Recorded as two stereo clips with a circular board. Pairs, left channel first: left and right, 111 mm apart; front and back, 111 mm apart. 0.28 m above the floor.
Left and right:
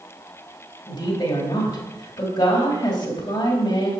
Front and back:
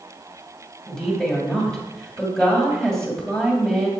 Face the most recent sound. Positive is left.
turn(degrees=85)